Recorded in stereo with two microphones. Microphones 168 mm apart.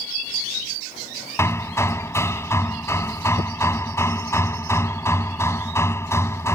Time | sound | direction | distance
1.4 | hammering | 15° left (ahead or behind) | ?